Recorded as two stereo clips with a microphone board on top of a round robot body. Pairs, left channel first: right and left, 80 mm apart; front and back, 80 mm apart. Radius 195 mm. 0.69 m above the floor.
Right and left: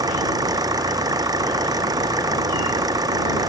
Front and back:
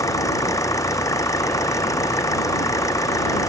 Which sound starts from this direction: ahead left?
An engine running, at 0.0 s.